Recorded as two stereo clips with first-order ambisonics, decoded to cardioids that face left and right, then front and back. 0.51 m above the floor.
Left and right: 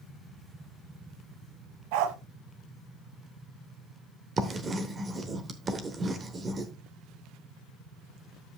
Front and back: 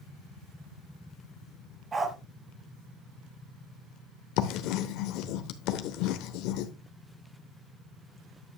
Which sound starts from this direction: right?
A dog barking, at 1.9 s.